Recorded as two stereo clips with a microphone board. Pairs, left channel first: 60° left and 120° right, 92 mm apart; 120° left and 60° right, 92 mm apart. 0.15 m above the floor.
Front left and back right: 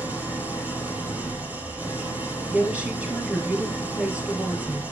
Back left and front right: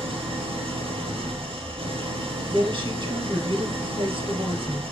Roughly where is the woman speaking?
Ahead right.